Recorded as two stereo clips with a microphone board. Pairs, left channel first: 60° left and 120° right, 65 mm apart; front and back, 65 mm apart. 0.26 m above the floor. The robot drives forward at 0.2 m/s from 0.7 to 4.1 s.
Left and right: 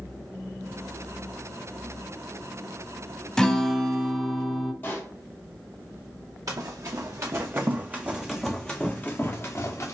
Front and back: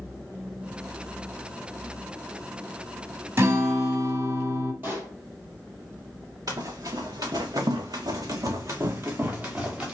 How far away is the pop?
About 2.5 m.